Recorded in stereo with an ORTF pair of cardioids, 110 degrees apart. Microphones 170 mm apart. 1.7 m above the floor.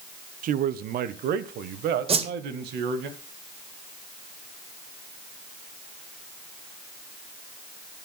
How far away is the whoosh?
About 1.9 m.